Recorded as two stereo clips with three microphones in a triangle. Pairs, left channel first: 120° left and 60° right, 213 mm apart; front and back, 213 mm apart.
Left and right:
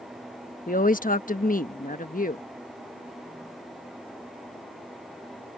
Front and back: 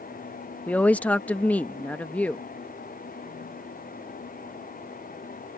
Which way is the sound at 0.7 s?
85° left.